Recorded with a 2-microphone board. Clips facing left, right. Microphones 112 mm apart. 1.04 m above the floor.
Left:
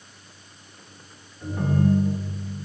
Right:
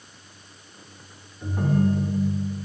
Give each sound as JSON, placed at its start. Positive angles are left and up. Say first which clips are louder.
{"t": 1.4, "sound": "a ringtone", "louder": "even", "side_deg": -10, "distance_m": 1.9}